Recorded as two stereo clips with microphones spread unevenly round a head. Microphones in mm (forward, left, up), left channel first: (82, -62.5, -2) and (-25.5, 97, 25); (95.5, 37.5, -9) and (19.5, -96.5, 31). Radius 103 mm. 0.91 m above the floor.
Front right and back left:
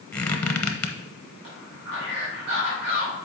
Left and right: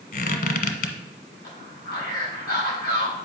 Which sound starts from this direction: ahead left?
A squeak, at 0.1 s.